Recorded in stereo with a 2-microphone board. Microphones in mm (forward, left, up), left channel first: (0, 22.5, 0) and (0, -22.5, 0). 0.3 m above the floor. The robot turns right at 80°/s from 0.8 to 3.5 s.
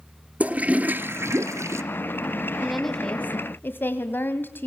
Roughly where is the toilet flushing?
Behind right.